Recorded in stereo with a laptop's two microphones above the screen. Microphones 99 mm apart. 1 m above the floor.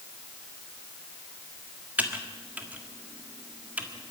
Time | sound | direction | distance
2.0 | typing on a keyboard | 15° right (ahead or behind) | 1.5 m